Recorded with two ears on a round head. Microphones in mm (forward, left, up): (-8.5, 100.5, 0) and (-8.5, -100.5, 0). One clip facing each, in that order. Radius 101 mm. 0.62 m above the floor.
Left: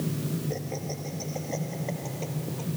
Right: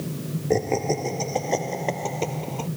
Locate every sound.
0.5 s laughter: 80° right; by 2.7 s 75° right (ahead or behind)